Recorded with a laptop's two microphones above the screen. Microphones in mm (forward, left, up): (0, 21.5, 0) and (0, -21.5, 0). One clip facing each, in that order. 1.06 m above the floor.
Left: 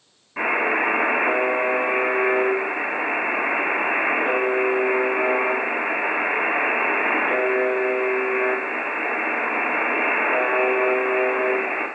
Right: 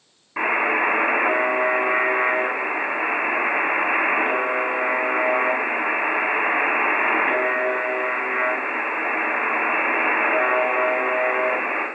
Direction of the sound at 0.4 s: 25° right (ahead or behind).